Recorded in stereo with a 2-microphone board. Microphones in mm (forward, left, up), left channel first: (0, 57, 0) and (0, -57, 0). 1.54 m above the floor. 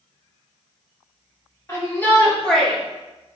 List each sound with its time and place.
1.7 s a shout: 25° left (ahead or behind), 3.5 m; by 2.8 s centre (ahead or behind), 2.5 m